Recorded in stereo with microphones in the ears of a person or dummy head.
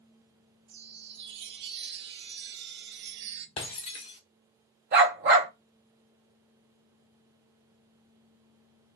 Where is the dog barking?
35° right (ahead or behind), 1.1 m.